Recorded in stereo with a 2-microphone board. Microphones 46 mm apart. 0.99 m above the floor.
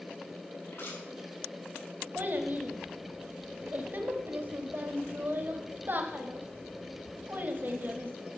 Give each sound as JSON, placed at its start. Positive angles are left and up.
{"t": 0.7, "sound": "crushing", "side_deg": 70, "distance_m": 4.5}
{"t": 2.1, "sound": "a child speaking", "side_deg": -45, "distance_m": 1.1}